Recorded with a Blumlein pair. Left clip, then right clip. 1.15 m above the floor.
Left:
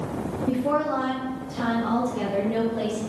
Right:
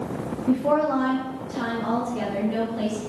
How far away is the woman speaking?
About 0.6 m.